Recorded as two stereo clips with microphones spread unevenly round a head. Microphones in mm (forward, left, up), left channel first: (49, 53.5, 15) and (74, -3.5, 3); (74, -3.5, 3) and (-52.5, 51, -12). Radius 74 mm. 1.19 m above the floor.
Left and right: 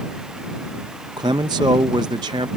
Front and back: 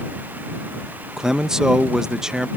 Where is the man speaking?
115° right.